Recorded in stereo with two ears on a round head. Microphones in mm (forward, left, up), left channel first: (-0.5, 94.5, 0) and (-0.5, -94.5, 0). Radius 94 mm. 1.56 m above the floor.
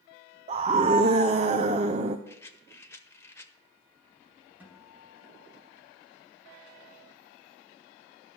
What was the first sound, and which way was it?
A scream, 35° right (ahead or behind).